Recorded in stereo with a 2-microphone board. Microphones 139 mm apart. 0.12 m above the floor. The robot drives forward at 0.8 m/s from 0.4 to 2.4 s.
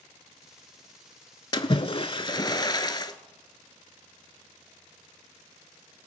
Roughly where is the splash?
Left.